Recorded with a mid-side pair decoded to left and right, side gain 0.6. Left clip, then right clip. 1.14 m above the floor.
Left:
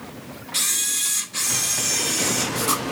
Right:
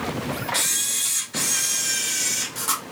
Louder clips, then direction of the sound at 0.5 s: Left 2 dB; straight ahead.